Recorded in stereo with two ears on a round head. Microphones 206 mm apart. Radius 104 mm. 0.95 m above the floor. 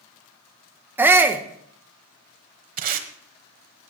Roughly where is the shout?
Centre.